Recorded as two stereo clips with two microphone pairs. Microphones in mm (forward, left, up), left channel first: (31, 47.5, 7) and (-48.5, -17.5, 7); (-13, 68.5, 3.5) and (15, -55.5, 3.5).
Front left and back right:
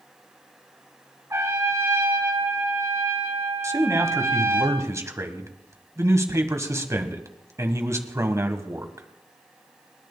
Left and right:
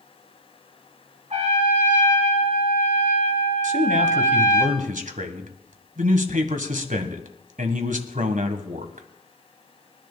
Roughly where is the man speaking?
Right.